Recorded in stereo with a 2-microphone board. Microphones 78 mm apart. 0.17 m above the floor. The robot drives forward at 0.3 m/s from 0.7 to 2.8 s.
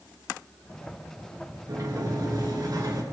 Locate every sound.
1.7 s a sliding door: 45° right (ahead or behind), 2.5 m; by 3.0 s 50° right (ahead or behind), 2.5 m